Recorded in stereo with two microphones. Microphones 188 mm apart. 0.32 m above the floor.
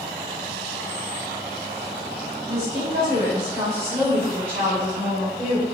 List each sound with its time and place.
2.5 s a woman speaking: 25° right (ahead or behind), 1.9 m; by 5.6 s centre (ahead or behind), 1.9 m